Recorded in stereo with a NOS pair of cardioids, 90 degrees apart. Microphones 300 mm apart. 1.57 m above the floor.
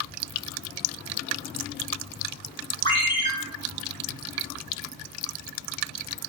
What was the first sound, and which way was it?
A ringtone, 20° left.